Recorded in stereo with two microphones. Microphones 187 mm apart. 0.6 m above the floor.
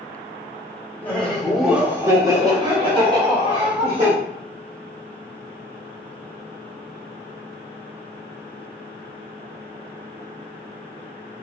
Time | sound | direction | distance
1.0 | laughter | 10° left (ahead or behind) | 0.9 m